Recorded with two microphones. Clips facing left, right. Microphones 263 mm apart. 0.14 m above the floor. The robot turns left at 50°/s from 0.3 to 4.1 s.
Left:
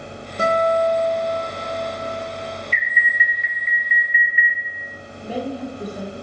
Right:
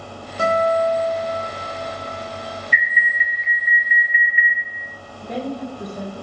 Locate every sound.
0.4 s a guitar: 25° left, 1.9 m; by 2.6 s 90° right, 1.9 m
2.7 s an alarm: 165° right, 2.5 m; by 4.6 s 130° left, 2.5 m
5.2 s a woman speaking: 10° left (ahead or behind), 3 m